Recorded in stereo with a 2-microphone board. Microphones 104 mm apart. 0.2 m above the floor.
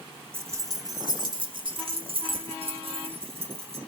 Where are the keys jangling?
25° right (ahead or behind), 0.8 m; by 3.8 s 70° right (ahead or behind), 2 m.